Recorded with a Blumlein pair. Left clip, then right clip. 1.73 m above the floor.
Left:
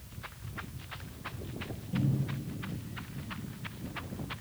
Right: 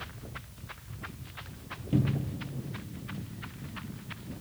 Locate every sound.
1.9 s a cupboard door: 40° right, 0.8 m